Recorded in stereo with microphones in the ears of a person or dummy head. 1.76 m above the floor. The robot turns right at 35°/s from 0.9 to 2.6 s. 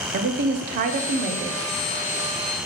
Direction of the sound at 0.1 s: 45° right (ahead or behind).